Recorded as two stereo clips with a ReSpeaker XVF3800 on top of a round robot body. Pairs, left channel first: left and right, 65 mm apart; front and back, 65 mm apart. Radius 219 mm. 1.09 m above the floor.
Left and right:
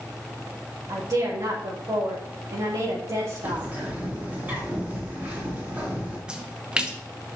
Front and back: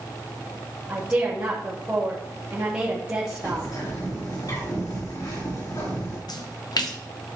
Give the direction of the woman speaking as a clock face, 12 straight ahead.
4 o'clock.